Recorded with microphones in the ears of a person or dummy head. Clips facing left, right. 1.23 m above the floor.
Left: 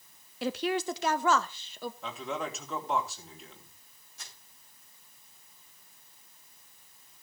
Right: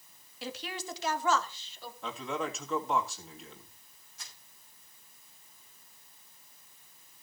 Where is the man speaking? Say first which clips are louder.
Right 3 dB; centre (ahead or behind), 2.5 m.